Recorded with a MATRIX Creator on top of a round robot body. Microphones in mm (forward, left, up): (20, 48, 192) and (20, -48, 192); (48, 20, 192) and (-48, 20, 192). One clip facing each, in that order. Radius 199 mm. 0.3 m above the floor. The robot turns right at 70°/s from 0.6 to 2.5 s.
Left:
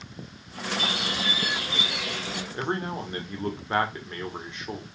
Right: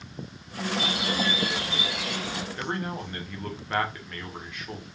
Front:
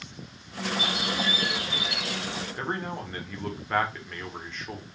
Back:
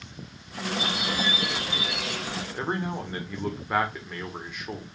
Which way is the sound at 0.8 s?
80° left.